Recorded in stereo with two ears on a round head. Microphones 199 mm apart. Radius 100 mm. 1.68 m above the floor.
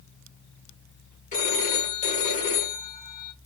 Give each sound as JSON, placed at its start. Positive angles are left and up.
{"t": 1.3, "sound": "a phone ringing", "side_deg": 35, "distance_m": 1.4}